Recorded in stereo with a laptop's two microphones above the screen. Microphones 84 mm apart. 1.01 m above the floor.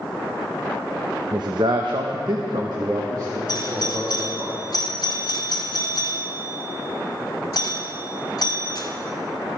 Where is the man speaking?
55° right (ahead or behind), 0.5 m; by 4.5 s 45° right (ahead or behind), 2 m.